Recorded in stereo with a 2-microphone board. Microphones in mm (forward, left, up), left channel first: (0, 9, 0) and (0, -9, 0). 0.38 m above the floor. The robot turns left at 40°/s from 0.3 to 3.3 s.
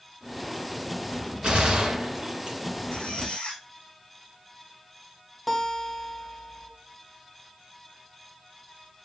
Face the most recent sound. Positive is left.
turn(degrees=10)  # may be behind; listen again after turning